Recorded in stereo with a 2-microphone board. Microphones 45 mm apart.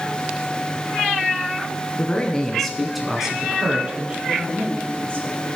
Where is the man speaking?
25° left (ahead or behind), 1.3 m; by 4.2 s 25° right (ahead or behind), 1.9 m.